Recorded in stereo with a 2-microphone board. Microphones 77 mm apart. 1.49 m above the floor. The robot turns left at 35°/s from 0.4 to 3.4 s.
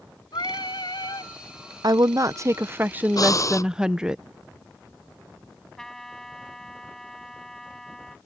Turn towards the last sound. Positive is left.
turn(degrees=5)  # may be behind; listen again after turning